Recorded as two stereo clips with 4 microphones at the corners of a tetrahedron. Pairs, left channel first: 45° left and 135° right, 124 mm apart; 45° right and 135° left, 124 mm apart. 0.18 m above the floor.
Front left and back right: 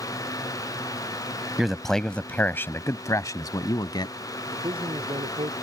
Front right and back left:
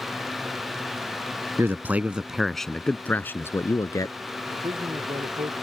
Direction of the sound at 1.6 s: 140° left.